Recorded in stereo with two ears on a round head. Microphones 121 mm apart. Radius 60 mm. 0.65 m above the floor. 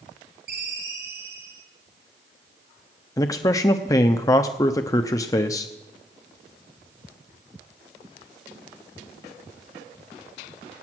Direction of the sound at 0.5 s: 80° right.